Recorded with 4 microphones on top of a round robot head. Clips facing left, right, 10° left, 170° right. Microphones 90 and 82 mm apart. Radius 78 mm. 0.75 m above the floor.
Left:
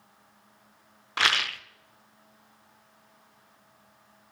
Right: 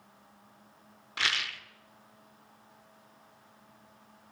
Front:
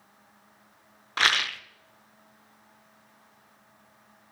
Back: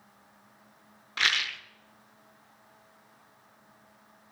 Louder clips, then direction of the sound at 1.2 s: Left 7 dB, front 4 dB; 55° left.